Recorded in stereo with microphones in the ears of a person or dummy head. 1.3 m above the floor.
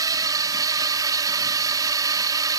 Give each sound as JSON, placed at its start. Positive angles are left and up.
{"t": 0.0, "sound": "a drone", "side_deg": -20}